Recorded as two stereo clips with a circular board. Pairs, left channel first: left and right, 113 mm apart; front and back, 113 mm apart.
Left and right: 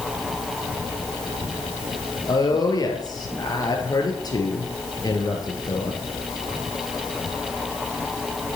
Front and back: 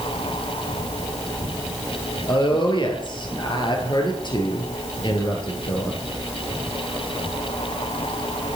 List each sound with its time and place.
2.3 s a woman speaking: 40° left, 2.5 m